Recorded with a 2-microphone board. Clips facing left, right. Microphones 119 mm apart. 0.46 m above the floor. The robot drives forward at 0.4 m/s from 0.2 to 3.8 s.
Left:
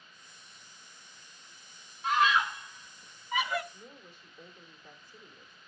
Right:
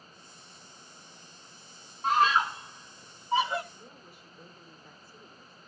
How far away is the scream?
About 1.0 m.